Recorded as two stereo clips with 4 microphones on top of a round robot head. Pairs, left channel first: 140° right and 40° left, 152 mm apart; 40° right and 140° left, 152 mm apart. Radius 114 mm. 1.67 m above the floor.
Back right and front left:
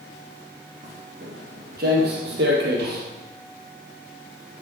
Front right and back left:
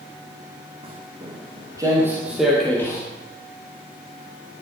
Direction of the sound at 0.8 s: 85° left.